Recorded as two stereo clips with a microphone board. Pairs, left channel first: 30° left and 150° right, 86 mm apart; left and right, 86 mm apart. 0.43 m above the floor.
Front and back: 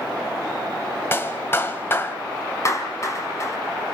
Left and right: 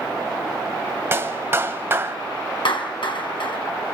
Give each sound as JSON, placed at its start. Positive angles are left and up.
{"t": 1.1, "sound": "a clap", "azimuth_deg": -30, "distance_m": 1.6}
{"t": 2.6, "sound": "a clap", "azimuth_deg": 80, "distance_m": 3.5}